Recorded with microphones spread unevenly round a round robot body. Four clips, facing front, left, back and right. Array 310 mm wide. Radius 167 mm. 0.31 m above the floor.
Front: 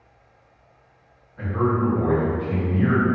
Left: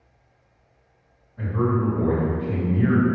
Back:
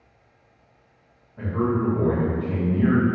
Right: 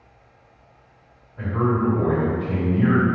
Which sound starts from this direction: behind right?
A man speaking, at 1.4 s.